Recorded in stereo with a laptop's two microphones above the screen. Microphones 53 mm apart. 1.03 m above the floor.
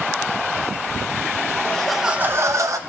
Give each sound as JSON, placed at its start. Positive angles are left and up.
{"t": 1.6, "sound": "laughter", "side_deg": 15, "distance_m": 1.0}